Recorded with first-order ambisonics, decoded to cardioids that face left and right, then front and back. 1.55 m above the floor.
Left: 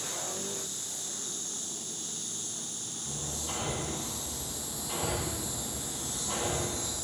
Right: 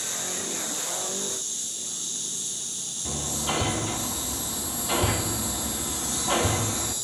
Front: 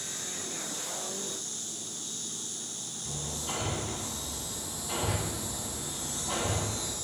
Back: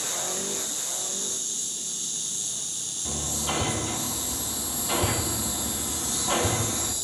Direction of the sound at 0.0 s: 145° right.